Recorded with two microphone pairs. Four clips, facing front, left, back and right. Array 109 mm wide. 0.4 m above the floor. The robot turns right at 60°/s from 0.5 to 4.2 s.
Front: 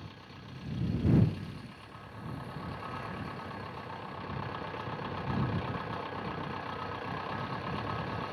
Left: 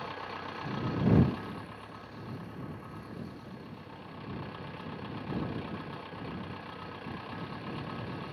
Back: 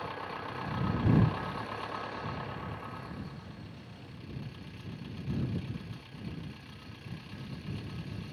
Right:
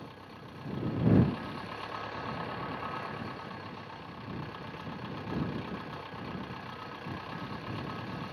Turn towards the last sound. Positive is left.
turn(degrees=0)